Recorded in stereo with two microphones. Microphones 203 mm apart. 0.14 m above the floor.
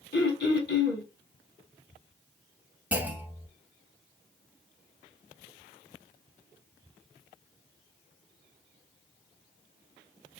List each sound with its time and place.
0.1 s throat clearing: 60° left (ahead or behind), 2 m
2.9 s a clunk: 10° right (ahead or behind), 0.8 m